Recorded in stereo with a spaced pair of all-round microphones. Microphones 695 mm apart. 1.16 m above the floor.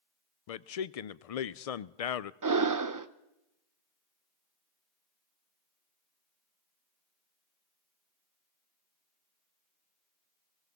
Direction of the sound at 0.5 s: 60° left (ahead or behind).